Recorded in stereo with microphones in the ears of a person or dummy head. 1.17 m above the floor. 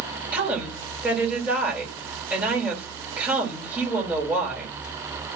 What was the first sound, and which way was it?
A woman speaking, 10° right (ahead or behind).